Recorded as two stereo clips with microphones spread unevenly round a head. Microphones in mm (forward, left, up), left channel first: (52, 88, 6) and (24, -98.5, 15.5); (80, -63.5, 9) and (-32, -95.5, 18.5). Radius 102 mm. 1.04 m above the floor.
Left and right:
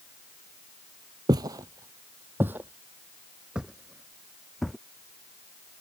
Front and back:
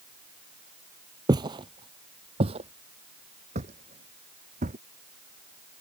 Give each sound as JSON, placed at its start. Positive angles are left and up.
{"t": 1.3, "sound": "footsteps", "azimuth_deg": -155}